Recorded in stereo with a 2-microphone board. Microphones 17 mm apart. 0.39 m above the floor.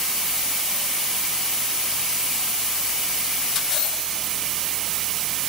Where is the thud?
I don't hear a thud.